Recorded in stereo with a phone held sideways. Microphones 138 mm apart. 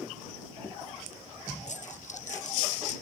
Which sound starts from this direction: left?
A dropped coin, at 1.7 s.